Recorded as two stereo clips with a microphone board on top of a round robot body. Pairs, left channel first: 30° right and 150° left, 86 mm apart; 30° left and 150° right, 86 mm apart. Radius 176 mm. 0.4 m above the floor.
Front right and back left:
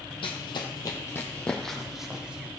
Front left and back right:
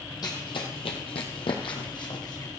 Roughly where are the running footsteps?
Ahead.